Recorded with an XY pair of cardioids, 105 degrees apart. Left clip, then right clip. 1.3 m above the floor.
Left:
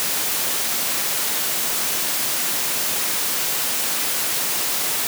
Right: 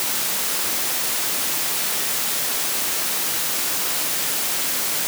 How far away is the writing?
I don't hear writing.